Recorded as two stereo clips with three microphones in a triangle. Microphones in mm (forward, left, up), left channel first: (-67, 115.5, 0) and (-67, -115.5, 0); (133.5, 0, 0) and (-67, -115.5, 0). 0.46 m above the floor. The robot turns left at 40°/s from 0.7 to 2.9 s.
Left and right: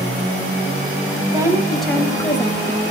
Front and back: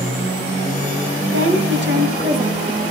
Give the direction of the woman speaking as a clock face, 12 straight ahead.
5 o'clock.